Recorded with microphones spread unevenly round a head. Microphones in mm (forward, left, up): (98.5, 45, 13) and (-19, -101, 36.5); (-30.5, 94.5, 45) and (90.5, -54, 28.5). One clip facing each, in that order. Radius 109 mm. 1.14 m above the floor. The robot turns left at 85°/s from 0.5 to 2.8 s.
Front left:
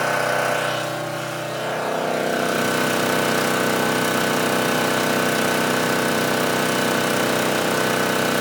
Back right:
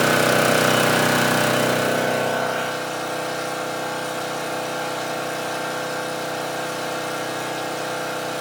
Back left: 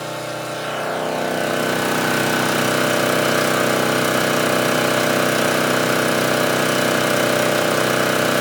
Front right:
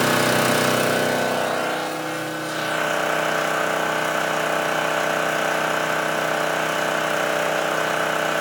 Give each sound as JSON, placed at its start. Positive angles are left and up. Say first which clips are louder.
{"t": 0.0, "sound": "an engine running", "louder": "back right 4 dB, front right 7 dB", "azimuth_deg": -80, "distance_m": 1.0}